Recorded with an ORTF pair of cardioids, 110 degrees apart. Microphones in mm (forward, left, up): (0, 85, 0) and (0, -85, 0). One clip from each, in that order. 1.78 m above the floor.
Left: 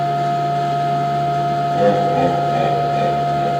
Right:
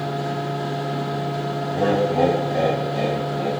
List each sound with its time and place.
0.0 s a machine running: 45° left, 4.5 m
1.7 s laughter: 25° left, 2.5 m